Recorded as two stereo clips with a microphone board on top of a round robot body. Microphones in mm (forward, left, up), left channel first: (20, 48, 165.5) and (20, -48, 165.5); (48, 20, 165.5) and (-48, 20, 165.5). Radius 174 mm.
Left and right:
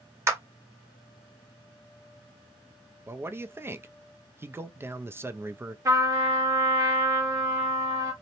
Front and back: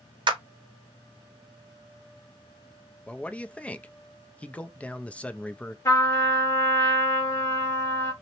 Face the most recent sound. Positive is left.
turn(degrees=-50)